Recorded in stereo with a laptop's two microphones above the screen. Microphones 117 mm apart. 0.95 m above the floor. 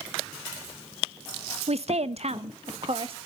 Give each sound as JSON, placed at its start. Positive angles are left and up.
{"t": 1.7, "sound": "a woman speaking", "side_deg": -65, "distance_m": 0.6}